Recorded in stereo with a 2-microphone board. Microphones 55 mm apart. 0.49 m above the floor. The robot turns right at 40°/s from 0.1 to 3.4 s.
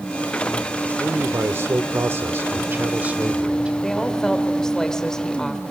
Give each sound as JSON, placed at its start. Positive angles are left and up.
{"t": 1.0, "sound": "a man speaking", "azimuth_deg": -125, "distance_m": 1.0}
{"t": 3.8, "sound": "a woman speaking", "side_deg": 15, "distance_m": 2.0}